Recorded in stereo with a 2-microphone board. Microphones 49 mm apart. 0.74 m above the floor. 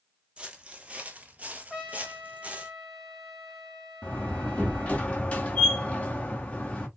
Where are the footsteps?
25° right (ahead or behind), 1.0 m.